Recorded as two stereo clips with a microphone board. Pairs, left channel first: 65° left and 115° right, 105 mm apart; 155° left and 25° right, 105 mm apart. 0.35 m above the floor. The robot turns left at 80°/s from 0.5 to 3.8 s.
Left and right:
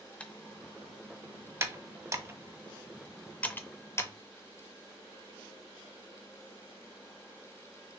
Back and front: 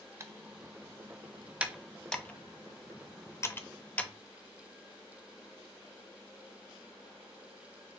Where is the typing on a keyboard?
Straight ahead, 0.6 m; by 4.1 s 100° left, 0.6 m.